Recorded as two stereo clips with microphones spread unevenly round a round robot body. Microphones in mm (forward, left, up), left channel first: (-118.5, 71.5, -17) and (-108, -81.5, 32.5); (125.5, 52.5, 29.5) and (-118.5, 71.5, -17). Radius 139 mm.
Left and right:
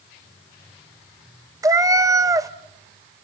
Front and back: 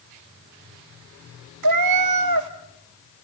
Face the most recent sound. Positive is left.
turn(degrees=-160)